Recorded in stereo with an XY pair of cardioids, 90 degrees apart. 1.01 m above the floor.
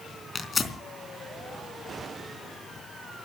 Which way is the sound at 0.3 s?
35° left.